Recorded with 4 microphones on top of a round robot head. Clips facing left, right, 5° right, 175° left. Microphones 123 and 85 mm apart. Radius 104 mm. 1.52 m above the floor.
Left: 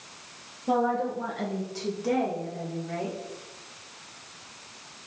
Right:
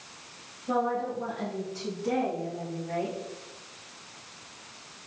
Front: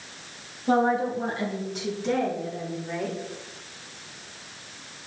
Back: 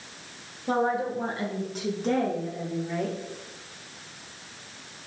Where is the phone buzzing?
I don't hear a phone buzzing.